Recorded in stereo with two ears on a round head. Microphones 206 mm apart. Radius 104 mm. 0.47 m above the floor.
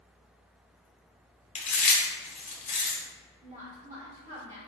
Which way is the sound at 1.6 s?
30° left (ahead or behind).